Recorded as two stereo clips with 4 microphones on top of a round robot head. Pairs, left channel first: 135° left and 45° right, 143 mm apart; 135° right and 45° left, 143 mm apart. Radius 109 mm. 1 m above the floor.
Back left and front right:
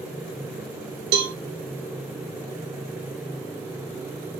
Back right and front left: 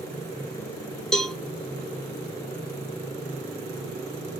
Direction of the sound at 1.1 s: 50° right.